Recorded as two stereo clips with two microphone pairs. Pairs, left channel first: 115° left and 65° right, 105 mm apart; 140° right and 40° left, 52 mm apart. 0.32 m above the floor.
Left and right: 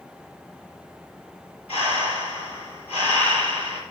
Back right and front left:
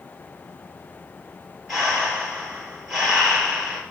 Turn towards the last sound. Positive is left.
turn(degrees=115)